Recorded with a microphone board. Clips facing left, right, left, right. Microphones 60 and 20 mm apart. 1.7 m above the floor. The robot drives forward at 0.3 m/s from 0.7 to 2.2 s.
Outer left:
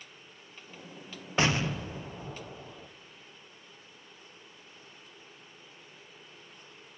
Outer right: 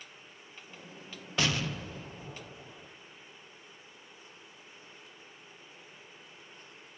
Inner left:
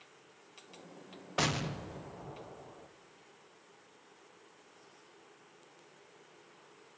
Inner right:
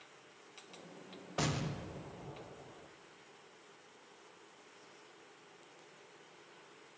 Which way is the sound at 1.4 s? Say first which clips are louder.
Outer left 4 dB, inner left 4 dB; 30° left (ahead or behind).